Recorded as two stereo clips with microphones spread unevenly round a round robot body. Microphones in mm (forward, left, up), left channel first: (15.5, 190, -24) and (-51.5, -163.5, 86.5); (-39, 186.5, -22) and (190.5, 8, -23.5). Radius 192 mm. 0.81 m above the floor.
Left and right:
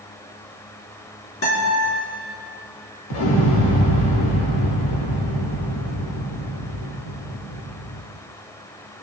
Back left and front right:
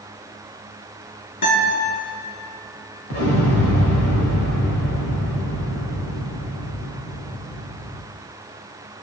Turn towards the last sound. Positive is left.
turn(degrees=105)